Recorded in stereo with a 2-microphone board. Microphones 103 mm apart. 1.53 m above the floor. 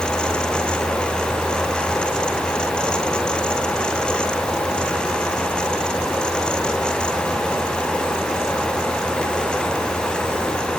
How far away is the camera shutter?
I don't hear a camera shutter.